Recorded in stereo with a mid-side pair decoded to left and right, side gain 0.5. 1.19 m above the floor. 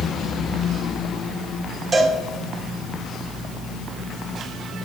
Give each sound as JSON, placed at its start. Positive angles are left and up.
{"t": 1.9, "sound": "a cowbell", "azimuth_deg": -25, "distance_m": 2.0}